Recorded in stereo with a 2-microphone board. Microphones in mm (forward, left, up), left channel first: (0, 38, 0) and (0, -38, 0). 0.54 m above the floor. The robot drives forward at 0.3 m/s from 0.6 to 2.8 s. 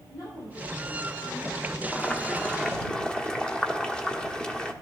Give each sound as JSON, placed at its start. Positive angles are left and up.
{"t": 0.1, "sound": "a woman speaking", "side_deg": 60, "distance_m": 7.5}
{"t": 1.9, "sound": "boiling", "side_deg": 15, "distance_m": 1.0}